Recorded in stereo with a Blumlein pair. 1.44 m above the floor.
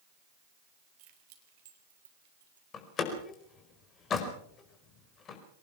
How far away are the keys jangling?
About 3.5 m.